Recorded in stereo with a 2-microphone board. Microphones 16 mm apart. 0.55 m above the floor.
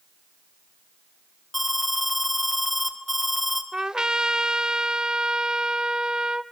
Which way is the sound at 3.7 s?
65° right (ahead or behind).